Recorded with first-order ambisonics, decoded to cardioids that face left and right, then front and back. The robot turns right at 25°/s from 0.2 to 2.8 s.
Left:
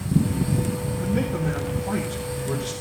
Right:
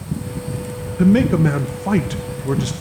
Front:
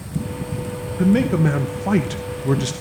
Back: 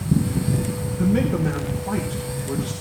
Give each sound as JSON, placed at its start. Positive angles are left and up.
{"t": 1.0, "sound": "a man speaking", "azimuth_deg": -70, "distance_m": 1.1}